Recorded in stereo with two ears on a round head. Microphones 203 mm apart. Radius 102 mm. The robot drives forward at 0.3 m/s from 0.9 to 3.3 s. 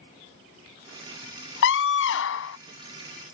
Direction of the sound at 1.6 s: 60° left (ahead or behind).